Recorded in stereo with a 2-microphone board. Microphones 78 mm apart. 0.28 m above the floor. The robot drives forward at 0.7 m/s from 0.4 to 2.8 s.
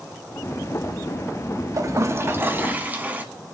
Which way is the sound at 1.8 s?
45° right (ahead or behind).